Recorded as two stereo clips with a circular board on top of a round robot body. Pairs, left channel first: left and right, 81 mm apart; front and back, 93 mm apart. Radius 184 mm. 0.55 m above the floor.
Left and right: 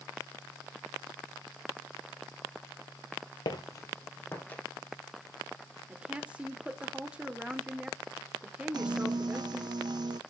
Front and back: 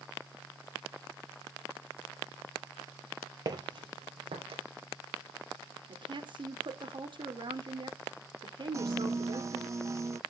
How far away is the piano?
About 0.7 m.